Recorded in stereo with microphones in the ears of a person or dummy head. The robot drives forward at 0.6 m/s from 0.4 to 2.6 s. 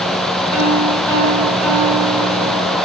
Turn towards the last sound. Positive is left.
turn(degrees=5)  # may be behind; listen again after turning